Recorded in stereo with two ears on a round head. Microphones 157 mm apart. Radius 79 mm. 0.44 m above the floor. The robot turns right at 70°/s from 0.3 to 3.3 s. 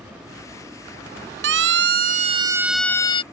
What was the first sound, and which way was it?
A siren, 75° right (ahead or behind).